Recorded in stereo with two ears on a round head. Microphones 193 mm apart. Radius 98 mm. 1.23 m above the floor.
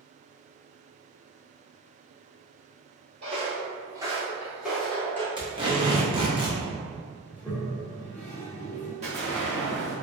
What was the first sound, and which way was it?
Footsteps, 30° right (ahead or behind).